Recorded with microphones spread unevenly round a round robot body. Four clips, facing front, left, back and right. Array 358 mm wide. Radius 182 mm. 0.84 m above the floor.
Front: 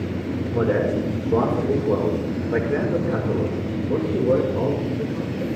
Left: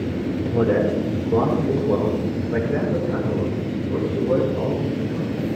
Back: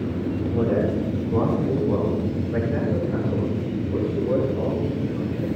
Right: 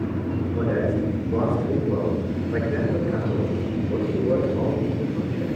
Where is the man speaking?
30° left, 3 m; by 5.5 s 25° right, 3.5 m.